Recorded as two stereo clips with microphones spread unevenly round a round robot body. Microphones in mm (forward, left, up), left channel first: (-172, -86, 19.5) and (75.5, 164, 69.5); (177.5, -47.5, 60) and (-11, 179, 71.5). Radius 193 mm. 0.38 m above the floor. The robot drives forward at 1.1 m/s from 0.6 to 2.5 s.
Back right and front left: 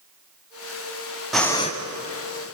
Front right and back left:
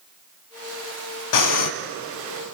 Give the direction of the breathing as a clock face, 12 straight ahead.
2 o'clock.